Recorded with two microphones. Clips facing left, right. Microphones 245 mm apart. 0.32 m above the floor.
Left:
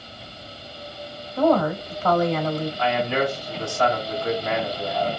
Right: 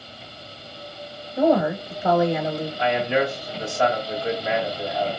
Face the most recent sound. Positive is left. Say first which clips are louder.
# right 3 dB
turn(degrees=-20)  # may be behind; listen again after turning